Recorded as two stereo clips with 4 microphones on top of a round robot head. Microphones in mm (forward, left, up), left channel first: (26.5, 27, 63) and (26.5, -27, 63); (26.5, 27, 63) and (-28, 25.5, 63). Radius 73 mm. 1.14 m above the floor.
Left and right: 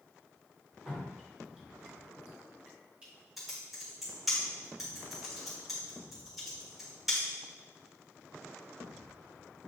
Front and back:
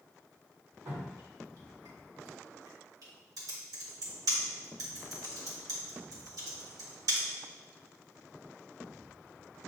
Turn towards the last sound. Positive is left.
turn(degrees=180)